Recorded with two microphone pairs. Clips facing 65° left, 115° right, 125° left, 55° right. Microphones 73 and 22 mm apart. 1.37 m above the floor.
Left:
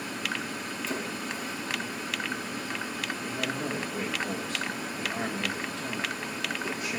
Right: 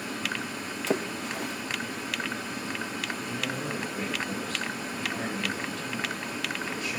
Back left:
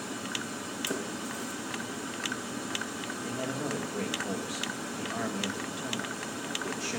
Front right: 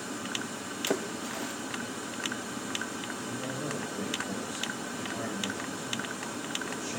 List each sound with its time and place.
0.9 s a splash: 105° right, 0.8 m
3.2 s a man speaking: 135° left, 2.0 m